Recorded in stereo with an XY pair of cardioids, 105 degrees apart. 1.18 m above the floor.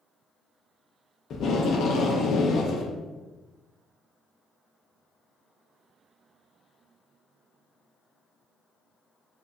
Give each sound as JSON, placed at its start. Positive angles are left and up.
{"t": 1.3, "sound": "tape being pulled", "azimuth_deg": 65, "distance_m": 0.8}